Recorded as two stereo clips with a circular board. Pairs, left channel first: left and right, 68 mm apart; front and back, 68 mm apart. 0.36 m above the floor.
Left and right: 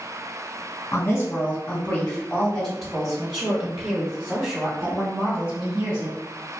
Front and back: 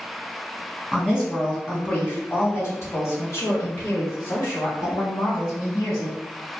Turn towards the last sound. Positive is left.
turn(degrees=-35)